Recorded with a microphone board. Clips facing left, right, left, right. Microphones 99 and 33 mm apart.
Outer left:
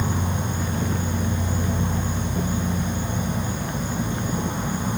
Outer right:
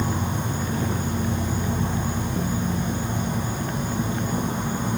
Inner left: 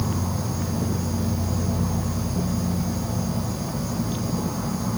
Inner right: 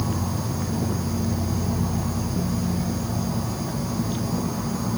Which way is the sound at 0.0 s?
40° right (ahead or behind).